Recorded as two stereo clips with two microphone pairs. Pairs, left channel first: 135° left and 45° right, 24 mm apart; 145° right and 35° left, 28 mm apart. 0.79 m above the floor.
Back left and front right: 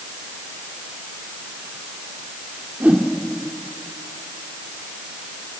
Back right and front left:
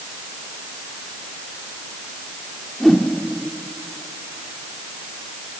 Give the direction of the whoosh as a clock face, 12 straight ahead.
2 o'clock.